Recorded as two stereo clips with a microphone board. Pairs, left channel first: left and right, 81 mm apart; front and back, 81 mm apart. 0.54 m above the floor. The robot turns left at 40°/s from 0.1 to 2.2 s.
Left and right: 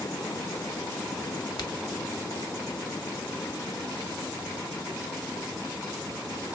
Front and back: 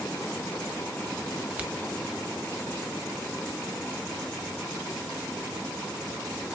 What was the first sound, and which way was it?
A crack, 110° left.